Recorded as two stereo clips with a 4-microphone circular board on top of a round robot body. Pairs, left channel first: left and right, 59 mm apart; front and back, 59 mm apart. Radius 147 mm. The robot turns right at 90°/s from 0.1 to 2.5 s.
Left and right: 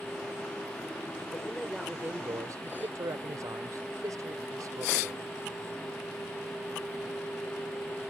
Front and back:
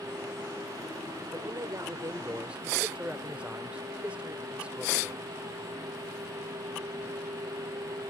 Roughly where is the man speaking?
Behind left.